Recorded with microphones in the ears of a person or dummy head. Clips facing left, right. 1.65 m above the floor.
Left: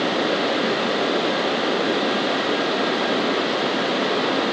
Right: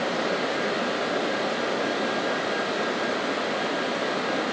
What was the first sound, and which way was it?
Only background noise.